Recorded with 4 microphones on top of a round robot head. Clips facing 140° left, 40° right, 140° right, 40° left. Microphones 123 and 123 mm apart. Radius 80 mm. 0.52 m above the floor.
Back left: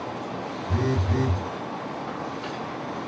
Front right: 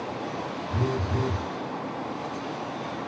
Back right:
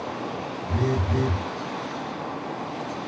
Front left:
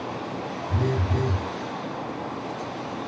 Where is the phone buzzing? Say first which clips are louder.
Back left 3 dB, back right 2 dB; 170° left, 1.1 m.